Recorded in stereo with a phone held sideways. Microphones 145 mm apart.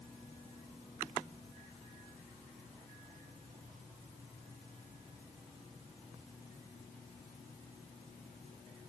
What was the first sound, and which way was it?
Only background noise.